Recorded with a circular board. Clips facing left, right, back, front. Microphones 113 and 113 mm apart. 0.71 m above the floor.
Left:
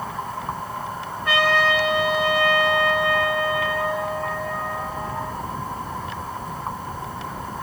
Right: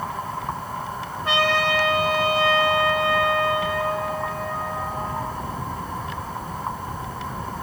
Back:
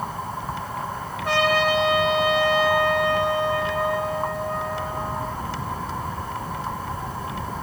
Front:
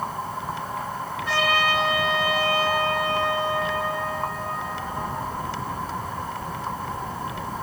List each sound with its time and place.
1.2 s a trumpet: 150° right, 2.5 m